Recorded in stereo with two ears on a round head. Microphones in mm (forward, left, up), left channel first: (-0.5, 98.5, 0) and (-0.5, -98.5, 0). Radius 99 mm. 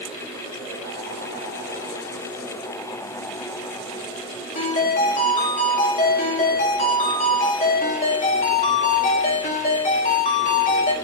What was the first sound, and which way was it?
A ringtone, 35° left (ahead or behind).